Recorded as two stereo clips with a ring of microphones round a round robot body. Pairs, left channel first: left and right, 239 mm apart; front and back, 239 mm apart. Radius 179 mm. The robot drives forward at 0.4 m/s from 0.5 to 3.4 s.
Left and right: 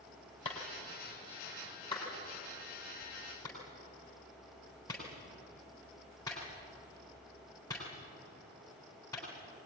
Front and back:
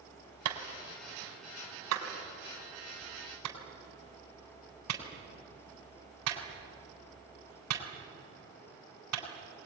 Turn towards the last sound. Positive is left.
turn(degrees=170)